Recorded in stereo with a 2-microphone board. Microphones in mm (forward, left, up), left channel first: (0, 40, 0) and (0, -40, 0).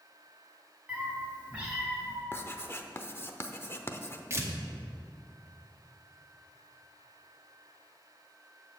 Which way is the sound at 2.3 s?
30° left (ahead or behind).